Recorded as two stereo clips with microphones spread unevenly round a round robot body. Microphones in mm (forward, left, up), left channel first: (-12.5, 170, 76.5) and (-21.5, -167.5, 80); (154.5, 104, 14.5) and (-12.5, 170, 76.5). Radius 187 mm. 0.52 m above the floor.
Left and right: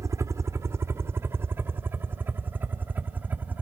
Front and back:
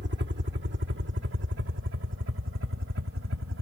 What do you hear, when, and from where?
0.0 s a helicopter: 170° right; by 3.6 s 175° right